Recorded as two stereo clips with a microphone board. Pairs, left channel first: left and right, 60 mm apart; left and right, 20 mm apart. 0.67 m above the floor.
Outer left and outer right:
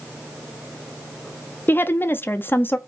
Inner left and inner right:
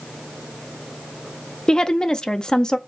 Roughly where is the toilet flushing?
I don't hear a toilet flushing.